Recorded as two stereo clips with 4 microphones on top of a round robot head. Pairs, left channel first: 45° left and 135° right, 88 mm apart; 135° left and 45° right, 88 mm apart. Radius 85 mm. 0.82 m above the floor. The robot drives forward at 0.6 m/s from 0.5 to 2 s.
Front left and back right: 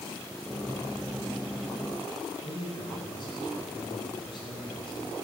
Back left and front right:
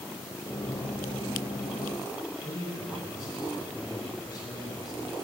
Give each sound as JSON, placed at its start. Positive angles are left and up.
{"t": 2.4, "sound": "a man speaking", "azimuth_deg": 85, "distance_m": 8.0}